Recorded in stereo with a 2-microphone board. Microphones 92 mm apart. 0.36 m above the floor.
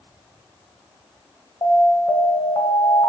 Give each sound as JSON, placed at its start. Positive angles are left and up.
{"t": 1.6, "sound": "an alarm", "side_deg": 50, "distance_m": 1.9}